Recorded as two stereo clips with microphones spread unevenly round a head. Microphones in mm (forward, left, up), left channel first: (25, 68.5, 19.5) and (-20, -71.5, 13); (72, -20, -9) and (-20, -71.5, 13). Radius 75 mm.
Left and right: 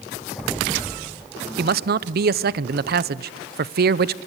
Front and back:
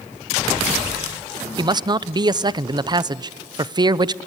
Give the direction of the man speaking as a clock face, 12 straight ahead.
3 o'clock.